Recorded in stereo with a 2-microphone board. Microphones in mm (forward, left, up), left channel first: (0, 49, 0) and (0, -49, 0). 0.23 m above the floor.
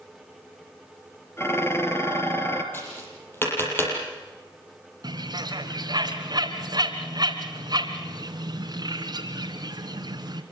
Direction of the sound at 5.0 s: 45° right (ahead or behind).